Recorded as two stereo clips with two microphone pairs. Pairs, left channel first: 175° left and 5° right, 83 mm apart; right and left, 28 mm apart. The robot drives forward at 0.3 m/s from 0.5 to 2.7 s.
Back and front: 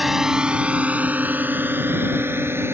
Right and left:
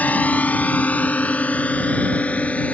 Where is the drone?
90° right; by 2.8 s 65° right.